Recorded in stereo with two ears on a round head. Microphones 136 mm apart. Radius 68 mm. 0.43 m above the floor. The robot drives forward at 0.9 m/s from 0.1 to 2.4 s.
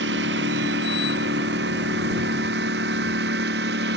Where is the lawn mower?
90° right; by 4.0 s 85° right.